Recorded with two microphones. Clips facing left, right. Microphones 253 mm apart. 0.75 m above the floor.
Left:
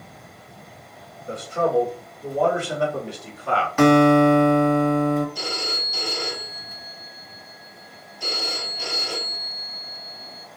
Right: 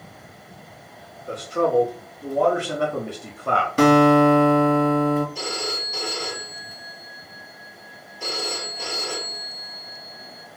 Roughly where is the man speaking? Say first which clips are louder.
Right 1 dB; right.